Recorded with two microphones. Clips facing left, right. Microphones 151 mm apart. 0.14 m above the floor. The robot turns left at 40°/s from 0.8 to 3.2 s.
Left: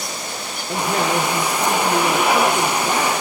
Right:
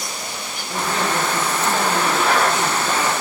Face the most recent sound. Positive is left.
turn(degrees=35)